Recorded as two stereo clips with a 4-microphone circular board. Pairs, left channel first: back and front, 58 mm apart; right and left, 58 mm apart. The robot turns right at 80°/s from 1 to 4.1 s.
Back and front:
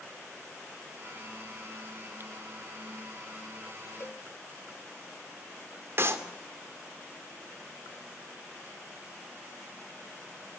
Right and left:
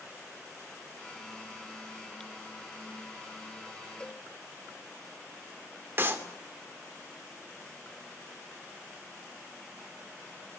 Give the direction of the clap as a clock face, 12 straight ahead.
11 o'clock.